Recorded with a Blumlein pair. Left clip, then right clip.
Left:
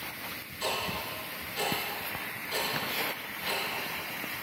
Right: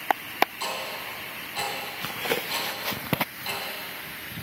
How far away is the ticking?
About 3 m.